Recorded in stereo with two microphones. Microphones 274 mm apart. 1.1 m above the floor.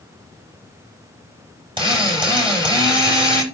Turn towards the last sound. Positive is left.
turn(degrees=-20)  # may be behind; listen again after turning